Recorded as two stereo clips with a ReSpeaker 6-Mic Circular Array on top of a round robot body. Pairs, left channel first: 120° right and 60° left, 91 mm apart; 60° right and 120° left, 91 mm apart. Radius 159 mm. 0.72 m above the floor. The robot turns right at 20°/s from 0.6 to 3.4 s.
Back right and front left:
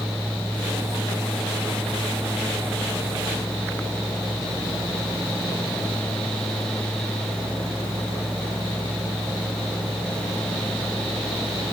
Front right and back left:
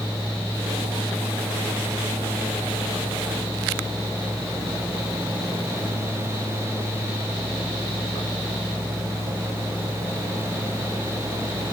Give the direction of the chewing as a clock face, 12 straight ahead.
I don't hear chewing.